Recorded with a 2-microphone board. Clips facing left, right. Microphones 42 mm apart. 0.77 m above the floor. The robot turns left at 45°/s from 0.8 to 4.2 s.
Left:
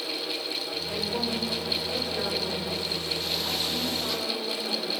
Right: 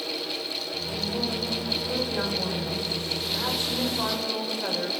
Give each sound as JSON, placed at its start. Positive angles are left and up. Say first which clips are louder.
{"t": 0.9, "sound": "a woman speaking", "louder": "even", "azimuth_deg": 40, "distance_m": 3.0}